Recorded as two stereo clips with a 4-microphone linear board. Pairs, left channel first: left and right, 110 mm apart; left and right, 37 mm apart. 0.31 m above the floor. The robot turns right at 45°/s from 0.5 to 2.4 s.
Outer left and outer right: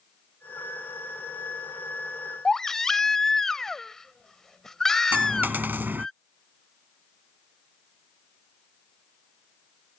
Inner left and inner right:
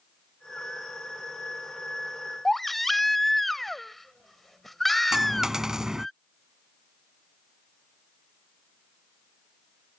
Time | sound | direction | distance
2.5 | a baby crying | 5° left (ahead or behind) | ?
5.1 | a dropped coin | 20° right (ahead or behind) | ?